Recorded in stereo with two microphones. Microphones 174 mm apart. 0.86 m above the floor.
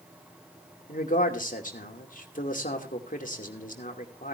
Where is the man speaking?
50° left (ahead or behind), 2.5 m.